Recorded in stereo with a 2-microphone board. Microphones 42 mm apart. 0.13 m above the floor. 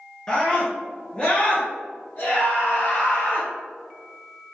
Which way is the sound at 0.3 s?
20° left (ahead or behind).